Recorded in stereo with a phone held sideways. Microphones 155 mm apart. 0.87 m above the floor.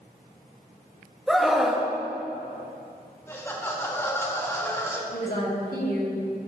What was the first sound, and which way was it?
A scream, centre (ahead or behind).